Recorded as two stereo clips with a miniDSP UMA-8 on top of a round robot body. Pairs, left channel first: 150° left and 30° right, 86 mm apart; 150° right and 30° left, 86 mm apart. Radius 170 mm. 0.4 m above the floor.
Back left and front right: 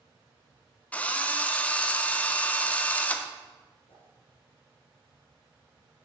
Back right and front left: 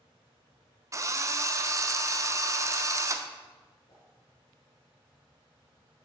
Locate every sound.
0.9 s a drill: 80° left, 0.6 m
3.9 s a whoosh: 165° left, 1.3 m